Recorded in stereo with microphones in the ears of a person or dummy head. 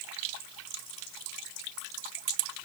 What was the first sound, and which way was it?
Only background noise.